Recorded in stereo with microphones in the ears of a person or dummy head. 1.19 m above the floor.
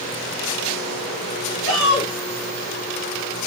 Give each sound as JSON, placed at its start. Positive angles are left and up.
{"t": 1.6, "sound": "a shout", "side_deg": 40, "distance_m": 3.0}